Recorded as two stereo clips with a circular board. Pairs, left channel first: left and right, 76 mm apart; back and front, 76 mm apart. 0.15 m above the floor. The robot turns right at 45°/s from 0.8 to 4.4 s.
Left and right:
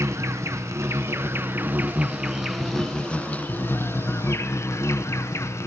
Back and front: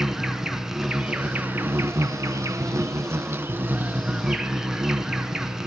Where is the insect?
80° right, 1.3 m; by 5.7 s 80° left, 1.3 m.